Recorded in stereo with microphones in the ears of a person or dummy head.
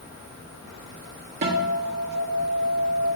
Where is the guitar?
50° right (ahead or behind), 1.5 m.